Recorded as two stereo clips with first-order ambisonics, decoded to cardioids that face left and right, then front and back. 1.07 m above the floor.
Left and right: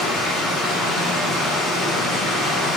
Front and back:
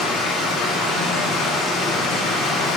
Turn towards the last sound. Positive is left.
turn(degrees=20)